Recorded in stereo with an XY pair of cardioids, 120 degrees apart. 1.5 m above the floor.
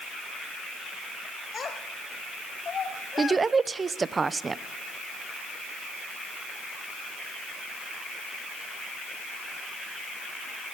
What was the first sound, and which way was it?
A child speaking, 30° left.